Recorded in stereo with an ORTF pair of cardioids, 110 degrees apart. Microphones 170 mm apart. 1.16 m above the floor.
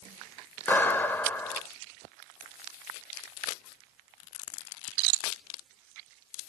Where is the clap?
10° left, 1.4 m.